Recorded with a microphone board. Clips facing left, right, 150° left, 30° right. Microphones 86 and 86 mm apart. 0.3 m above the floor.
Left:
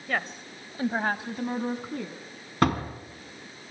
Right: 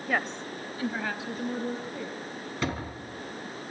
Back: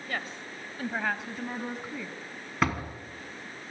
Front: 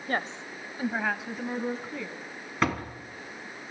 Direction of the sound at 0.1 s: 15° right.